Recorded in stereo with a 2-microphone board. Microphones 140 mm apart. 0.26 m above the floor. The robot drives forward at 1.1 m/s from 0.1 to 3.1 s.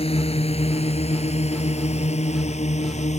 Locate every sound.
0.0 s a drone: 50° left (ahead or behind); by 3.2 s 60° left (ahead or behind)